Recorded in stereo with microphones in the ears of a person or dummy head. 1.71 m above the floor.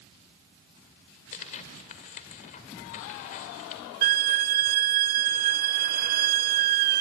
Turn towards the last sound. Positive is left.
turn(degrees=-50)  # may be behind; listen again after turning